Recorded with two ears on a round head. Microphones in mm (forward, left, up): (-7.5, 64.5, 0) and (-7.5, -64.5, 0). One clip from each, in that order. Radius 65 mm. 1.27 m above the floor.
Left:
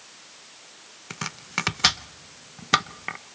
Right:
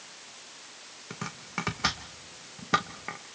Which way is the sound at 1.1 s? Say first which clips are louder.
Left 7 dB; 65° left (ahead or behind).